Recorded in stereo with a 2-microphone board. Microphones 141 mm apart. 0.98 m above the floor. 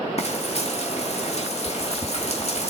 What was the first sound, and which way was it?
Frying, 45° left (ahead or behind).